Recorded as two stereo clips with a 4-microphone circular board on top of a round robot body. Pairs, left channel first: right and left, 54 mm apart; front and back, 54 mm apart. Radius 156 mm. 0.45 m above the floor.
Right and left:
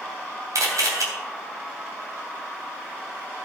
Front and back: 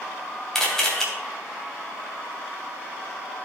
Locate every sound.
0.6 s a camera shutter: 80° left, 3 m